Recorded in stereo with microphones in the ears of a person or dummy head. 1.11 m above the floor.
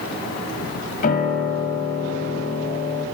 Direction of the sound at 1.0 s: 45° left (ahead or behind).